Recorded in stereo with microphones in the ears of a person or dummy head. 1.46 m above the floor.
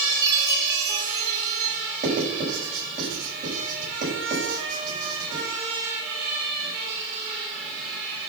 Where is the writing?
50° right (ahead or behind), 6.5 m.